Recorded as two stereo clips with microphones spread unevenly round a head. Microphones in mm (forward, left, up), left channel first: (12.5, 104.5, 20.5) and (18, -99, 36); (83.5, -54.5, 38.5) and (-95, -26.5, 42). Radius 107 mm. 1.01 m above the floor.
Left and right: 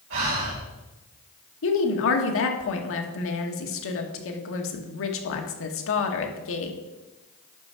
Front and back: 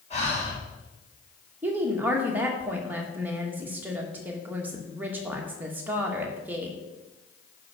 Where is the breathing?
65° right, 4.5 m.